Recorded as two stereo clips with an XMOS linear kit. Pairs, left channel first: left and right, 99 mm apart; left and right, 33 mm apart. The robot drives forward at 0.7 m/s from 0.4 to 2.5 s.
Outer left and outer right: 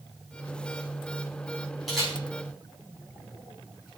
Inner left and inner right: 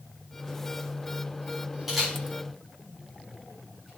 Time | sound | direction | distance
1.9 | a camera shutter | centre (ahead or behind) | 5.5 m